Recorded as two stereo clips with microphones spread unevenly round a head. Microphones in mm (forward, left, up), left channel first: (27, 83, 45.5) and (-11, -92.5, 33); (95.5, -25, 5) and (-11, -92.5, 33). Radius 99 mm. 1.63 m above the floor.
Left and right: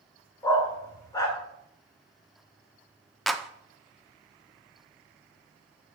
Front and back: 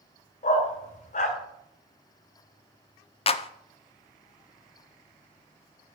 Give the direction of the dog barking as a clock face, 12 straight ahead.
12 o'clock.